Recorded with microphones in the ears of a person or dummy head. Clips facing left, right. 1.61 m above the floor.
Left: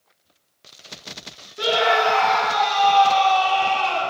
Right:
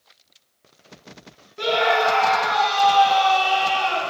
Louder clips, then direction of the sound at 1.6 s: Even; 5° left (ahead or behind).